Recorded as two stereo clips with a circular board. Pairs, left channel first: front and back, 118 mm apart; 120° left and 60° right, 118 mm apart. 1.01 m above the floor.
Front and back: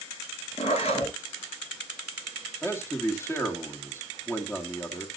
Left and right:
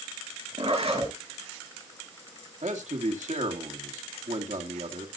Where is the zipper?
30° right, 8.5 m.